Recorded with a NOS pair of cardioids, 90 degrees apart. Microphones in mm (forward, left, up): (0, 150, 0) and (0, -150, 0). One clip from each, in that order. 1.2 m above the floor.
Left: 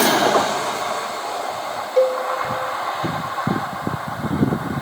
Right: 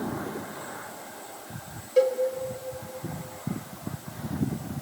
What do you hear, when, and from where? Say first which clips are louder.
2.0 s a cowbell: left 5 dB; 20° left, 4 m